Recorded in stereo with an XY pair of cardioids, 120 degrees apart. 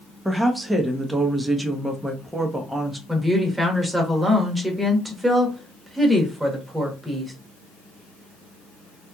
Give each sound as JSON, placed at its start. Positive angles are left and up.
{"t": 0.2, "sound": "a woman speaking", "azimuth_deg": -10, "distance_m": 1.0}
{"t": 3.1, "sound": "a woman speaking", "azimuth_deg": -10, "distance_m": 1.4}